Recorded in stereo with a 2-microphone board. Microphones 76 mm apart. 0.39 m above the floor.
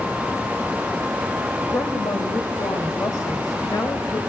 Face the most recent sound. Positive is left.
turn(degrees=50)  # may be behind; listen again after turning